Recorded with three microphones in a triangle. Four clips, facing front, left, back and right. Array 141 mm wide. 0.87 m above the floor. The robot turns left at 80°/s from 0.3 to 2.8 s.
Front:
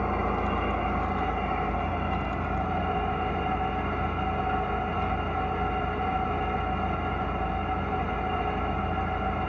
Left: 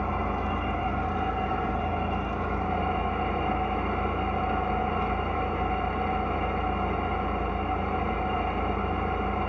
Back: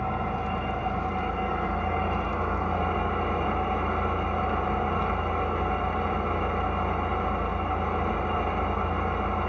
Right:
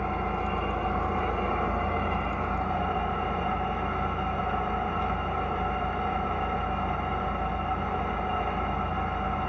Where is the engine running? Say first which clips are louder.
Even, front 2 dB; straight ahead, 1.0 m; by 9.5 s 160° left, 1.0 m.